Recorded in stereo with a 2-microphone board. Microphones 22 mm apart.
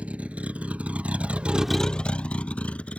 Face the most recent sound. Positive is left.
turn(degrees=65)  # may be behind; listen again after turning